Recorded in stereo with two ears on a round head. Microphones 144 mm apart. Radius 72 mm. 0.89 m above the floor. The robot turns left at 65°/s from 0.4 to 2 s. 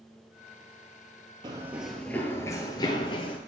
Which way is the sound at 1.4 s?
30° right (ahead or behind).